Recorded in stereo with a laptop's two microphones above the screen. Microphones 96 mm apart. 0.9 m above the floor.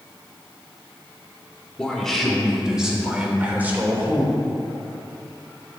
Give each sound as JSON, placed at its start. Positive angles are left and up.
{"t": 1.8, "sound": "a man speaking", "side_deg": 10, "distance_m": 2.5}